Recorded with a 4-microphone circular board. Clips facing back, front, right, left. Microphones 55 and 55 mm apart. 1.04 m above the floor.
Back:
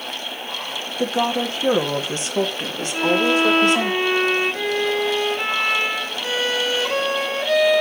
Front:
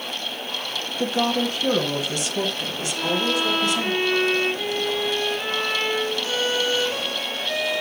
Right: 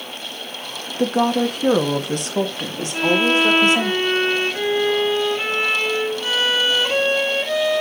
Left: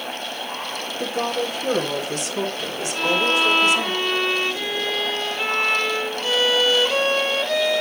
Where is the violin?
150° right, 1.9 m.